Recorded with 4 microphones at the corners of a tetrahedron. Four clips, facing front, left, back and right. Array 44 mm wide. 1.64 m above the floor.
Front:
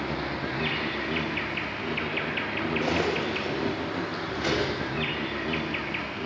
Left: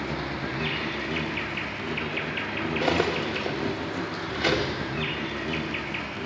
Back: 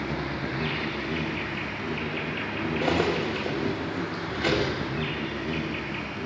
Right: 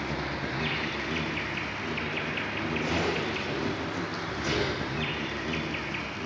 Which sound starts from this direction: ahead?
An insect, at 0.0 s.